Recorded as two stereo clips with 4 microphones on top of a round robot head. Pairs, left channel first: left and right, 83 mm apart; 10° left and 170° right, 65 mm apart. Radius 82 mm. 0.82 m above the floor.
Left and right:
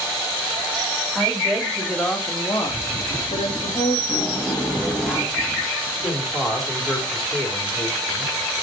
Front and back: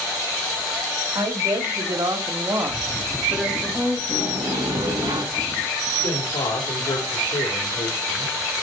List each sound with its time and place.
1.1 s a woman speaking: 175° right, 2.5 m; by 4.0 s 95° left, 2 m
4.1 s a sliding door: 175° left, 4 m
6.0 s a man speaking: 5° left, 2.5 m